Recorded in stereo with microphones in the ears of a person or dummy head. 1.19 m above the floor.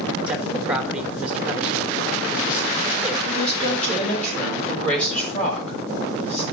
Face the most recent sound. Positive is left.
turn(degrees=10)  # may be behind; listen again after turning